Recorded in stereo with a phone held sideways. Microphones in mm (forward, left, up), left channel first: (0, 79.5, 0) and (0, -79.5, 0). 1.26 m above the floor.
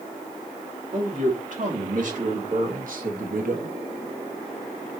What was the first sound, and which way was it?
A man speaking, 55° right (ahead or behind).